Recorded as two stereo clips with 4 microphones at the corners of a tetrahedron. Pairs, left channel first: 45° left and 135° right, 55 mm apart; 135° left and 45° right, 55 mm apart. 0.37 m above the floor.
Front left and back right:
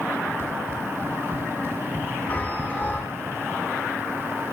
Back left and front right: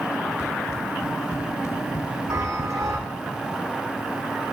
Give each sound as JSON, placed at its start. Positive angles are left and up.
{"t": 0.4, "sound": "running footsteps", "azimuth_deg": 175, "distance_m": 5.0}
{"t": 2.3, "sound": "a chime", "azimuth_deg": -15, "distance_m": 6.5}